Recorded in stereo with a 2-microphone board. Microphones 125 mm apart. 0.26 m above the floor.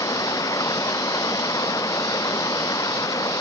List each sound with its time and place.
0.0 s running water: 25° left (ahead or behind)